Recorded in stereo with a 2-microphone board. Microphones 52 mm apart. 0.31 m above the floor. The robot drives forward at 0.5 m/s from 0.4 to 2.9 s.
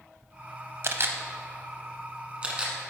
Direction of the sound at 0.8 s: 55° right (ahead or behind).